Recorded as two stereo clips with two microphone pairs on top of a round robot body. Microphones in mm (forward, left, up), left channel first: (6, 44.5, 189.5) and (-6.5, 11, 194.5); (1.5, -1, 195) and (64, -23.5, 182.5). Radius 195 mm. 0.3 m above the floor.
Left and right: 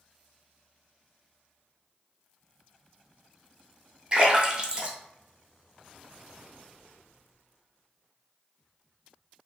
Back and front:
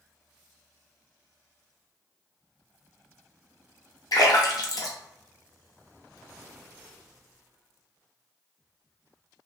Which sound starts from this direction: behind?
A splash, at 4.1 s.